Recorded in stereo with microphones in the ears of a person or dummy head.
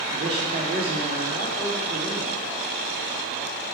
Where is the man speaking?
45° right (ahead or behind), 2.5 m.